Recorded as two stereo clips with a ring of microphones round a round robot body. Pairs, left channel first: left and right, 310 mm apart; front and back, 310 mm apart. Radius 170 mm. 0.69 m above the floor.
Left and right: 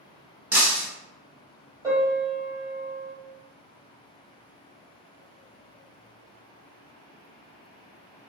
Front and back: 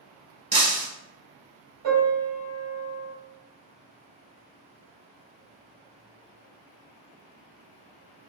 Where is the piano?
170° right, 1.8 m.